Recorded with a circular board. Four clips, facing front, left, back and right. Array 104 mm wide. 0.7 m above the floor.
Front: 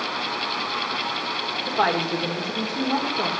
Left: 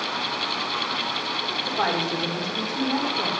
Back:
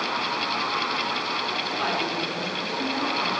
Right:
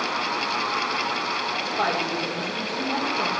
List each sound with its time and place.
1.7 s a woman speaking: 10° left, 1.8 m